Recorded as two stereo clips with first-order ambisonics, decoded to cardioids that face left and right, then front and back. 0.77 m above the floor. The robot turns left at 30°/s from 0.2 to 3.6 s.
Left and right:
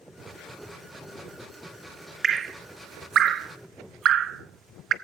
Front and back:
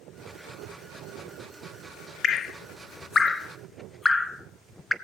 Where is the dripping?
30° right, 0.6 m; by 4.9 s 70° right, 0.6 m.